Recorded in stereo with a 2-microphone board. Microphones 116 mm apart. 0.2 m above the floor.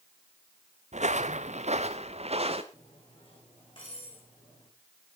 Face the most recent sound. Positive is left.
turn(degrees=45)  # may be behind; listen again after turning